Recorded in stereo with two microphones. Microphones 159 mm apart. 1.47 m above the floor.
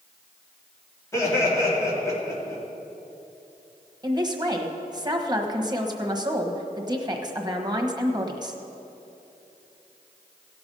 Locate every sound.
1.1 s laughter: 20° left (ahead or behind), 3.5 m
4.0 s a man speaking: 25° right (ahead or behind), 1.3 m